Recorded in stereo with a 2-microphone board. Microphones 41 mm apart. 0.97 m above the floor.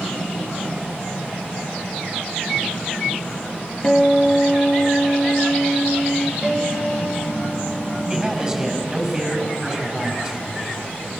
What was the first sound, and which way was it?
A guitar, 25° left (ahead or behind).